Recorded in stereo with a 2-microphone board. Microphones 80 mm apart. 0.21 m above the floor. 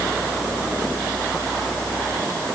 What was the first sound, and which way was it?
Only background noise.